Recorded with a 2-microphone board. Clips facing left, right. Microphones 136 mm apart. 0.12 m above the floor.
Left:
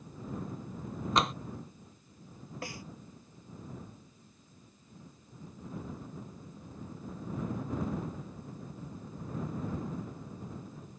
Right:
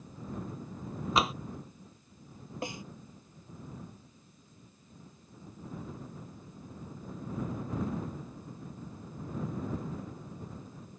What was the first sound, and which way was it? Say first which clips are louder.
Tapping: even; 5° right (ahead or behind).